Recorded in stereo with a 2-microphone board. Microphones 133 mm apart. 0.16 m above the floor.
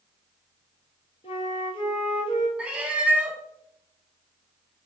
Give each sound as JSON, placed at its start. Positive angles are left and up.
{"t": 1.2, "sound": "a flute", "side_deg": 45, "distance_m": 1.2}
{"t": 2.6, "sound": "a cat meowing", "side_deg": -10, "distance_m": 0.7}